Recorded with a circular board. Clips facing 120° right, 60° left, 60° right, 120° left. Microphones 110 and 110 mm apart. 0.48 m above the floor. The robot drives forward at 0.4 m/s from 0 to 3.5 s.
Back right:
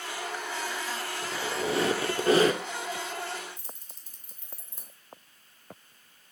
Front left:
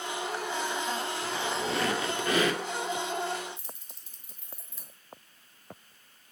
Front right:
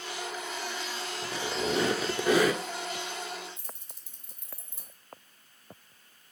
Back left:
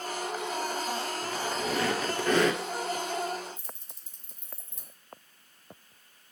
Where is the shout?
I don't hear a shout.